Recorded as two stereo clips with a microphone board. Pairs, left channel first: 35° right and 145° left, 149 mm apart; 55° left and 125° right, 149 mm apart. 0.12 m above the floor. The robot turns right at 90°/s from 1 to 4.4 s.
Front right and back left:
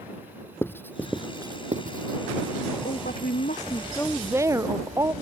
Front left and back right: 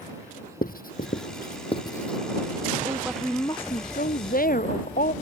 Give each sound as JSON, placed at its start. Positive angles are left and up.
{"t": 0.6, "sound": "writing", "azimuth_deg": 40}
{"t": 2.9, "sound": "a woman speaking", "azimuth_deg": -65}